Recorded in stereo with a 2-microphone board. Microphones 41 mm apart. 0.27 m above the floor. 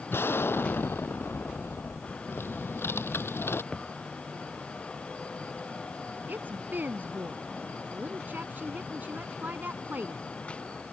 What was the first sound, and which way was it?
An explosion, 65° left (ahead or behind).